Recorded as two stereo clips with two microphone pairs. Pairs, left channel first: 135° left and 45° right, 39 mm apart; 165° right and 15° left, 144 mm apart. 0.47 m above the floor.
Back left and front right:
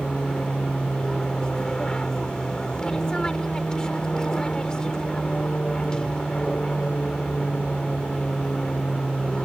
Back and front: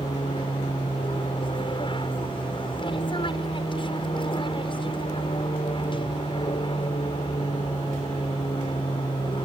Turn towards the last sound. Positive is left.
turn(degrees=-170)